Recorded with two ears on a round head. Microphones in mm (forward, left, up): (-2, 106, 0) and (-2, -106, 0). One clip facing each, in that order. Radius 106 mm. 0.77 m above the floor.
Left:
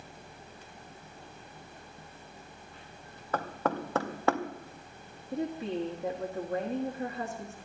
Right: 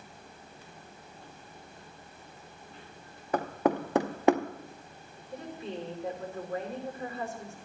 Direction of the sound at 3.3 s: 15° right (ahead or behind).